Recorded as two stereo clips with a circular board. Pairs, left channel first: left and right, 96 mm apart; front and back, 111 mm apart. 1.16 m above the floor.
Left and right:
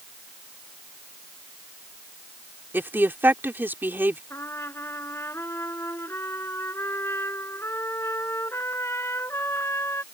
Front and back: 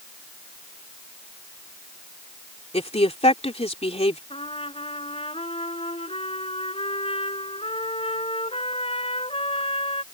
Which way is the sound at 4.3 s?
25° left.